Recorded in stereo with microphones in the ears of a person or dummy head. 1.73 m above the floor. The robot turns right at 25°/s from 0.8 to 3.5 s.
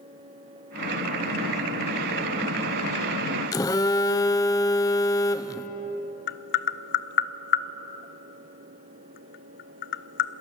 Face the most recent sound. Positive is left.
turn(degrees=55)  # may be behind; listen again after turning